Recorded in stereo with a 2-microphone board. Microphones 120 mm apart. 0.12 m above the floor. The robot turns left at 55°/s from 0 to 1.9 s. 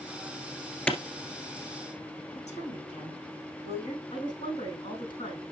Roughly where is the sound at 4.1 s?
Left.